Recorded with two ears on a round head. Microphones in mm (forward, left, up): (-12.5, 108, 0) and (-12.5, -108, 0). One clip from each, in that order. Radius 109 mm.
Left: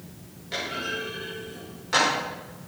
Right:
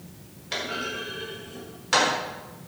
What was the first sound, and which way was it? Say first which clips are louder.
A clunk: even; 35° right (ahead or behind).